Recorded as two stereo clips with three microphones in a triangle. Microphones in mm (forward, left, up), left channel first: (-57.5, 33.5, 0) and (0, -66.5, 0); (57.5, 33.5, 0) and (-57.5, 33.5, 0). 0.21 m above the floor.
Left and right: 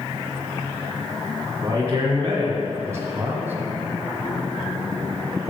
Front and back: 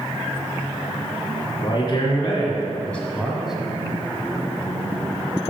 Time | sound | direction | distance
1.6 | a man speaking | 15° right | 2 m